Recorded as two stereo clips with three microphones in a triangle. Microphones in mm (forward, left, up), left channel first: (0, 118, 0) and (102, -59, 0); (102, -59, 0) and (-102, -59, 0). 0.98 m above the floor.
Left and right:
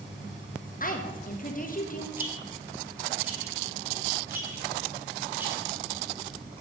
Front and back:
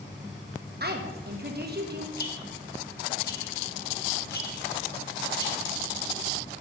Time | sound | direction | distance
0.8 | a woman speaking | 155° left | 1.2 m
2.2 | a rattle | 20° left | 1.4 m